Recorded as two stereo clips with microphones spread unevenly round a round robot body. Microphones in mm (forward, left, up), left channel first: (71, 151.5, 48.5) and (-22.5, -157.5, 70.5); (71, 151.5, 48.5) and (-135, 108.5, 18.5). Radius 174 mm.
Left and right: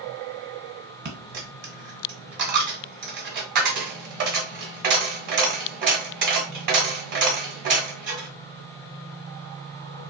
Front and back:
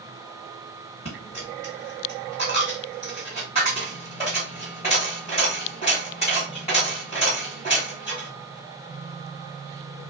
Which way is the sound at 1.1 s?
55° right.